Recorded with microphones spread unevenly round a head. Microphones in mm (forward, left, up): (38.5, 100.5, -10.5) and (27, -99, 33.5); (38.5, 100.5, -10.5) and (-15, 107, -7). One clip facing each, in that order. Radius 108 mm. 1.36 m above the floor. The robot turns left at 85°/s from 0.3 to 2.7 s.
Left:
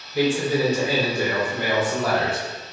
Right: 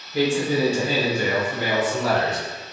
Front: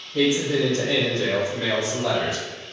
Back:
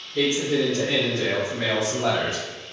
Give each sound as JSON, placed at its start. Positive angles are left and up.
{"t": 0.1, "sound": "a man speaking", "azimuth_deg": -60, "distance_m": 1.1}